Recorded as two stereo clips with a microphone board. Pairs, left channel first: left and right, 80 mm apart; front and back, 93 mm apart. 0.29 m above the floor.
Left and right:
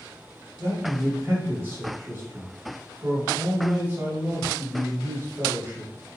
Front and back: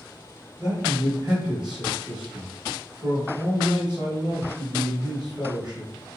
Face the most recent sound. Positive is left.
turn(degrees=-115)